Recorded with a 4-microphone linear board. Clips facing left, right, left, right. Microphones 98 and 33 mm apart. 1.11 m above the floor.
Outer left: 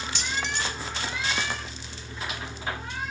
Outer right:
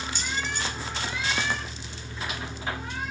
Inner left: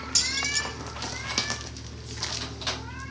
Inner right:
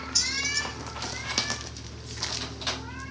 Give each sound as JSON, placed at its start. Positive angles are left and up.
{"t": 0.1, "sound": "keys jangling", "side_deg": 85, "distance_m": 2.0}